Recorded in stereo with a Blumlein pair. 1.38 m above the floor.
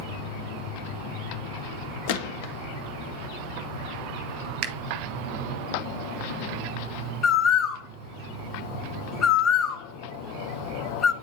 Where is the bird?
30° left, 0.5 m.